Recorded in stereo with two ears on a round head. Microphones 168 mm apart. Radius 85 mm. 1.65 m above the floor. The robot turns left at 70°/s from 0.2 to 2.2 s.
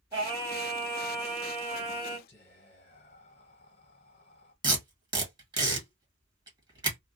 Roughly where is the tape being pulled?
Right.